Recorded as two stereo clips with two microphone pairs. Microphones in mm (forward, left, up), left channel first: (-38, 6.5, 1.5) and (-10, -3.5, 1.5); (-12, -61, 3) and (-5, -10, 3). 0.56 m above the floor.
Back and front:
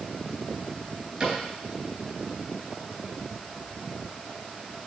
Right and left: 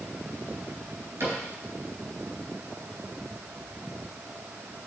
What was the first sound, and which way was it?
A cupboard door, 45° left.